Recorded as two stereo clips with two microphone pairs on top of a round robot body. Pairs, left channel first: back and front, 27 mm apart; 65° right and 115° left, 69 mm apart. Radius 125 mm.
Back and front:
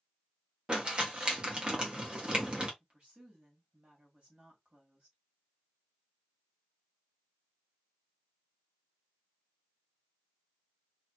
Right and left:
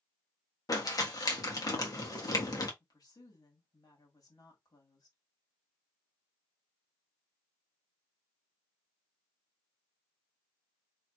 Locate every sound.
0.7 s crumpling: 55° right, 1.5 m
2.8 s a woman speaking: 45° right, 1.9 m